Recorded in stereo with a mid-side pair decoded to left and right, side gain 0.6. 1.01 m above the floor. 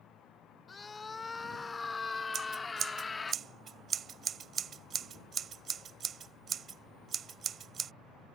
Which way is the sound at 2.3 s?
40° right.